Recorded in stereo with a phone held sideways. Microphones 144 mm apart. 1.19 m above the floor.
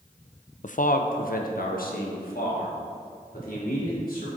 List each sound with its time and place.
0.6 s a man speaking: 60° left (ahead or behind), 0.5 m; by 4.3 s 85° left, 4 m